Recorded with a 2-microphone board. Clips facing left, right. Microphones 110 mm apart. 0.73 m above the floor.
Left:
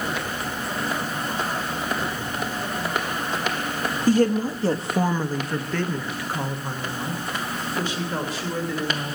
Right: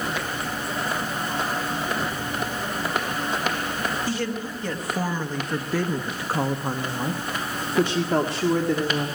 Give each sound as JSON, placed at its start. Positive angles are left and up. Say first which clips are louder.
{"t": 4.1, "sound": "a woman speaking", "louder": "left 9 dB", "side_deg": 45, "distance_m": 1.1}